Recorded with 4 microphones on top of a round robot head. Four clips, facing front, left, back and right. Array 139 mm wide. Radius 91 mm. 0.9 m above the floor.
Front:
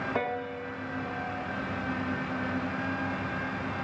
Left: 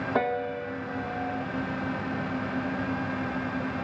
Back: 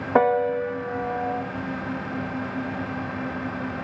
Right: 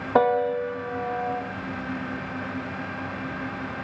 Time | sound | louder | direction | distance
0.1 | a piano | right 9 dB, back 18 dB | 150° right | 1.6 m